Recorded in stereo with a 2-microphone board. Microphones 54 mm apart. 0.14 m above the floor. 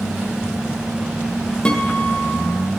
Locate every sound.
1.6 s a guitar: 15° left (ahead or behind), 2.0 m